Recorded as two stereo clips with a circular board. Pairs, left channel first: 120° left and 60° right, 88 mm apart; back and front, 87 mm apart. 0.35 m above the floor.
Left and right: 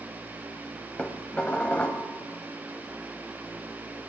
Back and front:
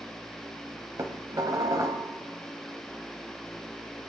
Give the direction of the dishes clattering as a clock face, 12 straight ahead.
10 o'clock.